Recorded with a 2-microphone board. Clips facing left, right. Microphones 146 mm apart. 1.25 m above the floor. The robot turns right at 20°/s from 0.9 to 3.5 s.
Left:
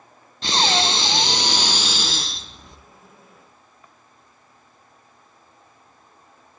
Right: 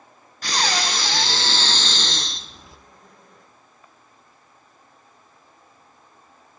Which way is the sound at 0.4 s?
150° left.